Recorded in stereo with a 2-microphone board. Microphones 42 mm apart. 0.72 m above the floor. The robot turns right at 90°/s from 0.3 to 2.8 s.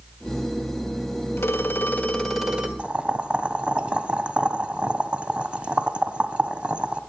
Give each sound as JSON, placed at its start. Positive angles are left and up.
{"t": 1.4, "sound": "a phone ringing", "azimuth_deg": 90, "distance_m": 1.7}
{"t": 2.8, "sound": "boiling", "side_deg": -30, "distance_m": 1.3}